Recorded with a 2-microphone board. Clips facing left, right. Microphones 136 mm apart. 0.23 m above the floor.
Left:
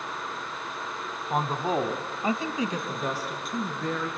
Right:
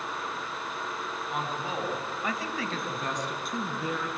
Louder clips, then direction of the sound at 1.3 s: Left 8 dB; 50° left (ahead or behind).